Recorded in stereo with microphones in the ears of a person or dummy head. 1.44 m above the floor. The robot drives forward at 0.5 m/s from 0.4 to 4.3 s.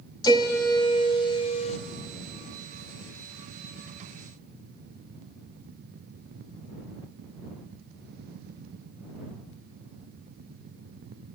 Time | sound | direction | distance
0.2 | a piano | 20° left (ahead or behind) | 1.5 m